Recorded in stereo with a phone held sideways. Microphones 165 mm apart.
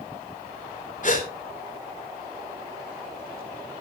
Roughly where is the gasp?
Left.